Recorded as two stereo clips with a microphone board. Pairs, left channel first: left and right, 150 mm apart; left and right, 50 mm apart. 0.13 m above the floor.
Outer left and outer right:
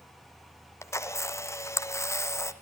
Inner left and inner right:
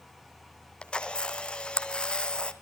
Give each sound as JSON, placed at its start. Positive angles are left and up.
{"t": 0.8, "sound": "a camera shutter", "side_deg": 20, "distance_m": 1.3}